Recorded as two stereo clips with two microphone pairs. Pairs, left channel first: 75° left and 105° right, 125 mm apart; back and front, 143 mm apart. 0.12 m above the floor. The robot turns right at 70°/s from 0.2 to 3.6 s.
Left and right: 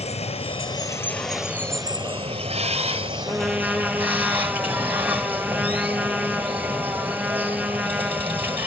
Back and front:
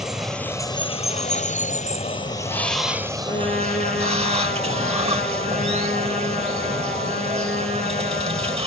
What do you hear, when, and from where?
0.0 s running water: 90° left, 1.5 m; by 8.7 s 35° right, 1.5 m
3.3 s a trumpet: 155° left, 4 m; by 8.6 s straight behind, 4 m